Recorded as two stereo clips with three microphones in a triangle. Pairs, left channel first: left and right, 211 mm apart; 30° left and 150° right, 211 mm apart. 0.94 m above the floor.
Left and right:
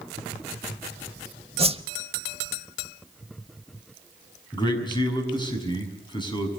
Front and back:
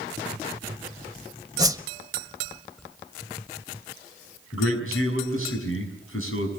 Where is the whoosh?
100° right, 0.7 m.